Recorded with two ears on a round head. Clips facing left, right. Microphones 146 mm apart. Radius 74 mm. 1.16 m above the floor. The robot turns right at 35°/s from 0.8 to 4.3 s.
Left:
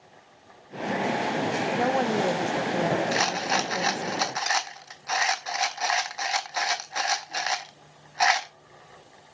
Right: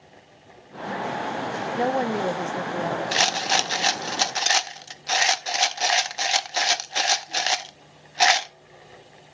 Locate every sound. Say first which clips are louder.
1.8 s a woman speaking: right 2 dB; 25° right, 0.5 m; by 4.1 s 60° left, 0.5 m
3.1 s a rattle: right 1 dB; 30° right (ahead or behind), 0.6 m